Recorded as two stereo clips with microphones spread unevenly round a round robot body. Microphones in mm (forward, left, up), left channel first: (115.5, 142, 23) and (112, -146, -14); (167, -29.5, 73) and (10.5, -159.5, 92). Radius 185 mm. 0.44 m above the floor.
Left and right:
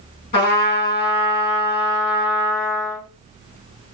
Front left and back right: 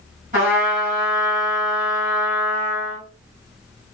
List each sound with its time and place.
0.3 s a trumpet: 160° left, 1.9 m